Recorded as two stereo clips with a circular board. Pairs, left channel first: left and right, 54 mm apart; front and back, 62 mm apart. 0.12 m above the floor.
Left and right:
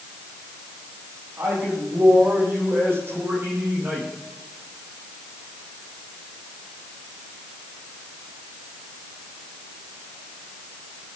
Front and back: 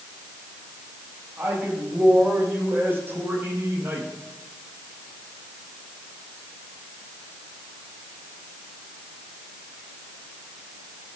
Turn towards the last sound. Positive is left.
turn(degrees=-135)